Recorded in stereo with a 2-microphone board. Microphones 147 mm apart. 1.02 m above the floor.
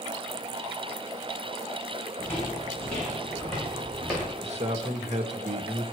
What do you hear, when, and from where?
2.2 s footsteps: 15° left (ahead or behind), 7 m; by 4.3 s 5° right (ahead or behind), 6.5 m
4.4 s a man speaking: 50° right (ahead or behind), 1.4 m